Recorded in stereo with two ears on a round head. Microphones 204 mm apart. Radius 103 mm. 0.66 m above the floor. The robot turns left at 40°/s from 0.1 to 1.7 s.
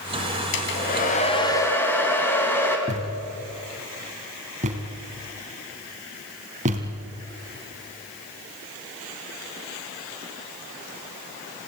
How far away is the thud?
About 2.5 m.